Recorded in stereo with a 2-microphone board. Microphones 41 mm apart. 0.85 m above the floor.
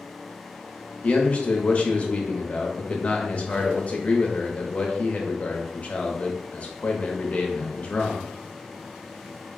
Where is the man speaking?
40° left (ahead or behind), 0.8 m.